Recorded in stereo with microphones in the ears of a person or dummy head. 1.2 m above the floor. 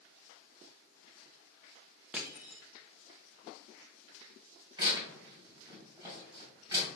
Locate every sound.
2.1 s crushing: 5° right (ahead or behind), 0.6 m
4.8 s tearing paper: 25° right (ahead or behind), 2 m